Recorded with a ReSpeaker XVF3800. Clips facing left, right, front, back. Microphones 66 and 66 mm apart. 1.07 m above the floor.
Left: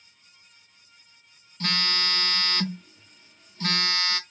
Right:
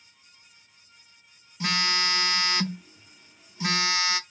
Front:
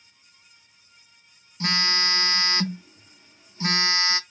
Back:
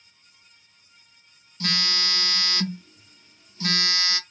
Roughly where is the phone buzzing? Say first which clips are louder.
Right 2 dB, front 3 dB; ahead.